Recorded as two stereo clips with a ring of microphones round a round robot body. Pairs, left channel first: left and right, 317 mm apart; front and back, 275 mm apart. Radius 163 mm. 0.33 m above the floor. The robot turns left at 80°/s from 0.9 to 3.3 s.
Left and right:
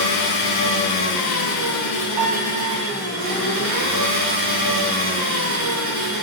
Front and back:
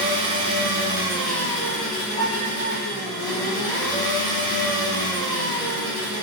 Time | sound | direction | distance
0.0 | an engine running | 120° left | 1.4 m
2.2 | a piano | 70° right | 0.6 m